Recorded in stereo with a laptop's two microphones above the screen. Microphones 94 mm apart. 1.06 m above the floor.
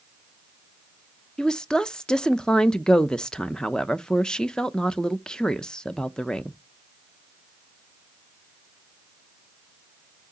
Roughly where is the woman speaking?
Centre.